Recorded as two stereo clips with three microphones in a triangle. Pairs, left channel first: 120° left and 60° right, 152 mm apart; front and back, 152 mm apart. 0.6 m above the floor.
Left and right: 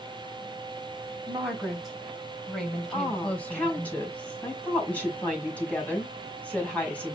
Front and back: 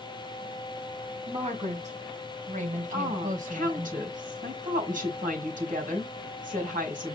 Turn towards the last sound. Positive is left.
turn(degrees=-160)